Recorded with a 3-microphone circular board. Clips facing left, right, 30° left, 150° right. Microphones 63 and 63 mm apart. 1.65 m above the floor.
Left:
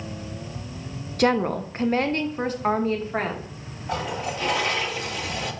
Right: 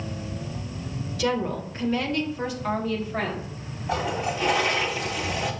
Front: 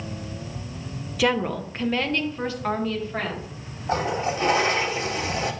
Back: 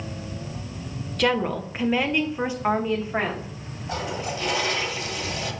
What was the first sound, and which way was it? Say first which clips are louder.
A woman speaking: left 5 dB, even; 115° left.